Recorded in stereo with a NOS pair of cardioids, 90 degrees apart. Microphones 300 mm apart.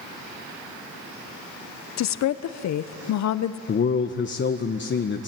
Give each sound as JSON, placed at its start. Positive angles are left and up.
{"t": 2.0, "sound": "a woman speaking", "azimuth_deg": 65, "distance_m": 1.0}
{"t": 3.7, "sound": "a man speaking", "azimuth_deg": 40, "distance_m": 1.2}